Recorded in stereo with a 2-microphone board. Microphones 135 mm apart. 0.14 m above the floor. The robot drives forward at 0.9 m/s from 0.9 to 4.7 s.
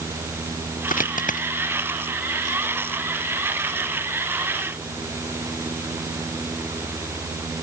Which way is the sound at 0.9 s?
85° left.